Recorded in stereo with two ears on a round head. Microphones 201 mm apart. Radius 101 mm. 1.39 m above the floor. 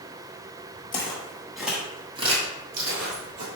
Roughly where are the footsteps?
Left.